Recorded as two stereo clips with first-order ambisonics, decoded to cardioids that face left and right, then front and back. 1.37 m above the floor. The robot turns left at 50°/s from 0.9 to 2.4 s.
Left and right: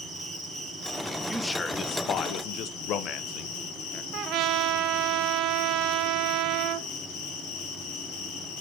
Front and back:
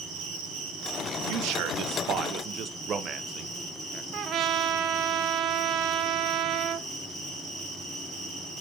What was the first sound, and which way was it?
An insect, straight behind.